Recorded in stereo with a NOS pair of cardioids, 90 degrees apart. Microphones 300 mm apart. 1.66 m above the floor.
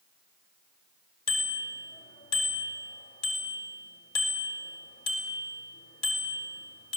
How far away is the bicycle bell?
About 4 m.